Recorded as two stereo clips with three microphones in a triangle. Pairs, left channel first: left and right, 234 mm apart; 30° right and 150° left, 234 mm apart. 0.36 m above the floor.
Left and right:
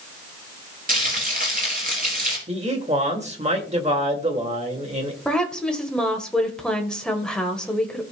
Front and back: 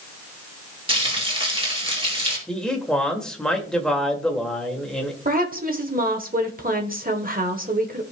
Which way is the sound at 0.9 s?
145° right.